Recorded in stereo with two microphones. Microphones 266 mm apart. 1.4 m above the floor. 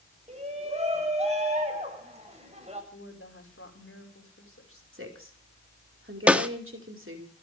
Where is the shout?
25° right (ahead or behind), 9 m.